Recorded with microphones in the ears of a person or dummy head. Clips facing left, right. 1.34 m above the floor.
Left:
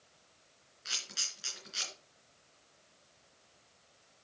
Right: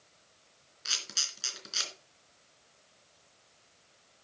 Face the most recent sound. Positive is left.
turn(degrees=-70)  # may be behind; listen again after turning